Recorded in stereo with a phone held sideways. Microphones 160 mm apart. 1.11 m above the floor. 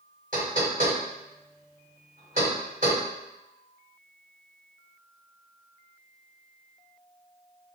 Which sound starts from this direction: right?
Knocking, at 0.3 s.